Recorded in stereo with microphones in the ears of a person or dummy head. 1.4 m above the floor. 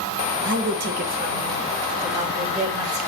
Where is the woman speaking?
70° right (ahead or behind), 1.4 m; by 3.0 s 40° right (ahead or behind), 2.5 m.